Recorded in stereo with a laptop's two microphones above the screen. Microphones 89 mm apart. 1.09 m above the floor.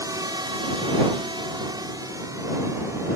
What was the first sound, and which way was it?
A drone, 40° right (ahead or behind).